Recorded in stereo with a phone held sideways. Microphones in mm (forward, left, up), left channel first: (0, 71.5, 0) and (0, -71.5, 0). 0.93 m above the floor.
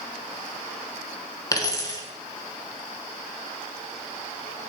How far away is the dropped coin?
About 1.4 m.